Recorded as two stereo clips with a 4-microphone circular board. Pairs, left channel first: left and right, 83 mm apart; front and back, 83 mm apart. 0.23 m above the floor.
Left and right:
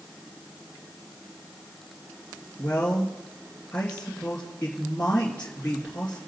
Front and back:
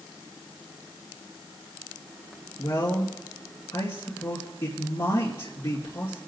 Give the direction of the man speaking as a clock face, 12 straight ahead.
11 o'clock.